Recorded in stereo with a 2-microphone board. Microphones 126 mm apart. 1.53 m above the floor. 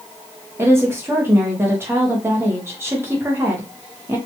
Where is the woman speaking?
20° right (ahead or behind), 0.8 m.